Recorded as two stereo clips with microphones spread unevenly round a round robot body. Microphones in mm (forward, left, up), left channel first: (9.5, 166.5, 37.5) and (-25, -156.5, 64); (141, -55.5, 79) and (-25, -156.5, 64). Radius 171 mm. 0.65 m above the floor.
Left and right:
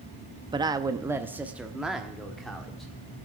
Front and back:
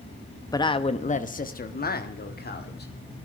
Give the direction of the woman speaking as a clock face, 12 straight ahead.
1 o'clock.